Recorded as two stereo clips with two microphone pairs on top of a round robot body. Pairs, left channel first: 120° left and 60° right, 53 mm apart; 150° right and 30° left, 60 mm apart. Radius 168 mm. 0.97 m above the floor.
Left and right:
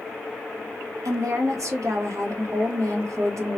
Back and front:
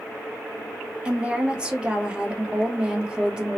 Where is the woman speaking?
45° right, 1.3 m.